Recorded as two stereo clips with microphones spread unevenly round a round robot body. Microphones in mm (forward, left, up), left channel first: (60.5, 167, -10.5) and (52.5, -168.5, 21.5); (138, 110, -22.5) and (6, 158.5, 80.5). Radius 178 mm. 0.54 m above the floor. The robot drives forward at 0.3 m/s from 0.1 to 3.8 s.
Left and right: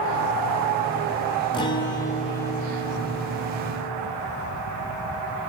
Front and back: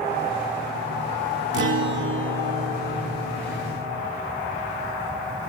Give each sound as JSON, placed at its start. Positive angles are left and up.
{"t": 1.5, "sound": "a guitar", "azimuth_deg": 155, "distance_m": 0.6}